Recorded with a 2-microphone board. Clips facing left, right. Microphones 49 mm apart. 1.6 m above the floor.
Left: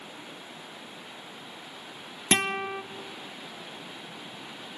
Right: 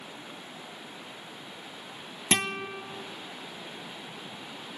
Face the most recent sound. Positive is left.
turn(degrees=25)  # may be behind; listen again after turning